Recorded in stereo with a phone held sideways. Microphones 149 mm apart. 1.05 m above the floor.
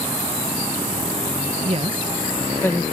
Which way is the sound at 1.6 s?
45° right (ahead or behind).